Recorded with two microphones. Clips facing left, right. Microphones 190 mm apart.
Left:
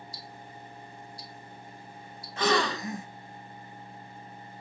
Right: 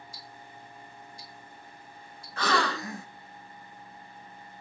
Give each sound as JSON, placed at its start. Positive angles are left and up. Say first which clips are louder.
{"t": 0.1, "sound": "ticking", "louder": "left 3 dB", "side_deg": 35, "distance_m": 0.9}
{"t": 2.4, "sound": "a gasp", "louder": "left 2 dB", "side_deg": 20, "distance_m": 0.5}